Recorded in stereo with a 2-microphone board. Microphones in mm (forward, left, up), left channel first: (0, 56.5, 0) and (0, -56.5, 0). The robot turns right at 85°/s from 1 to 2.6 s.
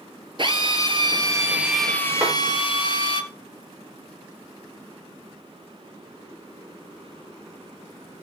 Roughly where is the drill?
Ahead right.